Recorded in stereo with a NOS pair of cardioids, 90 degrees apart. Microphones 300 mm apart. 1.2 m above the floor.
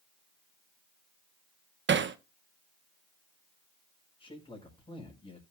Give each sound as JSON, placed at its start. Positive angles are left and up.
{"t": 1.9, "sound": "hammering", "azimuth_deg": -40, "distance_m": 1.1}
{"t": 4.2, "sound": "a man speaking", "azimuth_deg": 15, "distance_m": 5.0}